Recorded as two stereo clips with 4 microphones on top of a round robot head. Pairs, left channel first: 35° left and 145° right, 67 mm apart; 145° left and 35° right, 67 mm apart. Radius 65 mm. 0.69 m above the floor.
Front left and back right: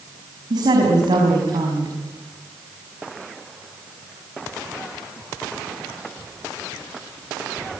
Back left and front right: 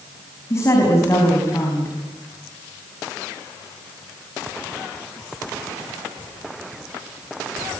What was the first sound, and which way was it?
A woman speaking, 165° right.